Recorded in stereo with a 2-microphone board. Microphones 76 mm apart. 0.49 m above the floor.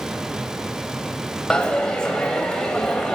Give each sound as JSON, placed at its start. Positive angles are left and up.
{"t": 1.5, "sound": "a dropped coin", "side_deg": 10, "distance_m": 0.5}